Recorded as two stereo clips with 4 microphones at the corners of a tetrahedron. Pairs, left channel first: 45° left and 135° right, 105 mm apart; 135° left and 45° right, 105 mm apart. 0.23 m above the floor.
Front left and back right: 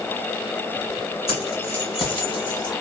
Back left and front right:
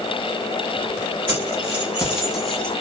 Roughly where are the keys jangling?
Ahead left.